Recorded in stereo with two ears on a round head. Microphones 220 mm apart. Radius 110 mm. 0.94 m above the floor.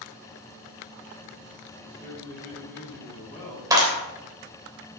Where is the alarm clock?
No alarm clock in this recording.